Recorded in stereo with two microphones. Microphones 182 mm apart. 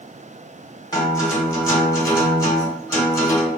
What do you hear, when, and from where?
0.9 s a guitar: 20° left (ahead or behind), 0.9 m